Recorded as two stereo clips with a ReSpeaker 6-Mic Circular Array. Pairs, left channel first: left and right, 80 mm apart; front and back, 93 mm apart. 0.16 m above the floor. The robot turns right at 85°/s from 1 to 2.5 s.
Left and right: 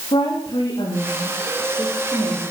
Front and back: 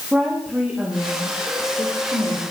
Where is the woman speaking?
100° left, 10 m; by 2.4 s 140° right, 10 m.